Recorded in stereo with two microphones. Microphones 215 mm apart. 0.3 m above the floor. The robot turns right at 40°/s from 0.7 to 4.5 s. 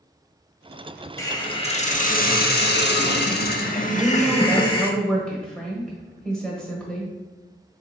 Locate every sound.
1.2 s a hiss: 20° left, 0.5 m; by 4.9 s 150° left, 0.5 m
3.9 s a woman speaking: 10° right (ahead or behind), 1.2 m; by 7.1 s 5° left (ahead or behind), 1.2 m